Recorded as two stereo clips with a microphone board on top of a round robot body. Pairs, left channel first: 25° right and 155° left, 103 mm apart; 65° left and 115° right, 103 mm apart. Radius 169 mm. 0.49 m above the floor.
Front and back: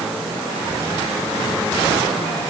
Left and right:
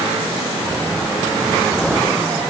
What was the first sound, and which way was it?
Only background noise.